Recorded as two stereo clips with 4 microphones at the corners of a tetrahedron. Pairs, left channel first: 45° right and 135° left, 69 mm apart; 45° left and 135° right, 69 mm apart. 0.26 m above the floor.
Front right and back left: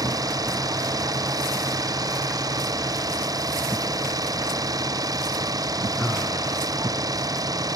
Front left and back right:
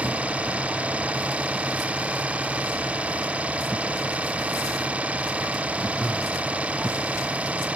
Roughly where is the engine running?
Behind left.